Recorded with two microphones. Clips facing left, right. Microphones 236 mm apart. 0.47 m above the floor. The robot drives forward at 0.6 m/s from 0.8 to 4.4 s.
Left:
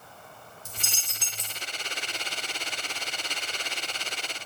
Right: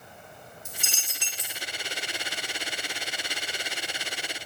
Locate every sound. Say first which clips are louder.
0.7 s a dropped coin: right 1 dB; 40° left (ahead or behind), 1.7 m; by 1.6 s 50° left (ahead or behind), 1.3 m